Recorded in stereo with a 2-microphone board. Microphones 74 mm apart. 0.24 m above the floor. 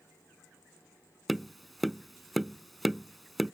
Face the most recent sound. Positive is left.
turn(degrees=0)  # may be behind; listen again after turning